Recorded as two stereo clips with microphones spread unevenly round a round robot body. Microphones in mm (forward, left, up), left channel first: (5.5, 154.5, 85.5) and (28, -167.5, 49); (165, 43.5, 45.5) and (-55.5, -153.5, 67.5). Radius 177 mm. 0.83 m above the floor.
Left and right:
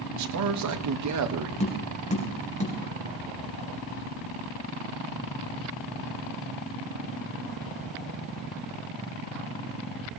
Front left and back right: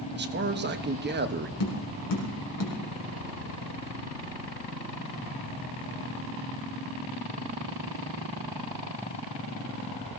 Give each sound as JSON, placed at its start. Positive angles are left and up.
{"t": 0.1, "sound": "a man speaking", "azimuth_deg": -85, "distance_m": 1.4}
{"t": 1.6, "sound": "tapping", "azimuth_deg": 25, "distance_m": 4.0}